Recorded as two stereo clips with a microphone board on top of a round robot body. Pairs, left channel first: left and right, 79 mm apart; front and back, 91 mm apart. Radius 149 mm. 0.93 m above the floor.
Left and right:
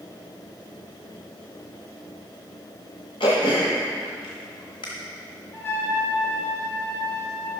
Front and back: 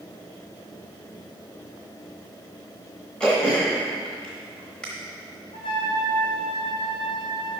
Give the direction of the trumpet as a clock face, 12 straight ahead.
11 o'clock.